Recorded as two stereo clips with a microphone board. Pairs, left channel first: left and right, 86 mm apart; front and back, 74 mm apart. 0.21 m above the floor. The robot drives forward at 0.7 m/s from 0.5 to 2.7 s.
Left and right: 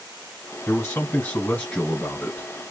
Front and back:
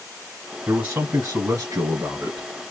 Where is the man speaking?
125° left, 1.6 m; by 2.5 s 155° left, 2.5 m.